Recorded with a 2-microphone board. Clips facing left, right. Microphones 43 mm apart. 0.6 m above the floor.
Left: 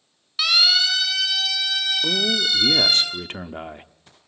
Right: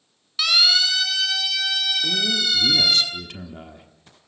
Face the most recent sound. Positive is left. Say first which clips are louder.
# left 1 dB
turn(degrees=40)  # may be behind; listen again after turning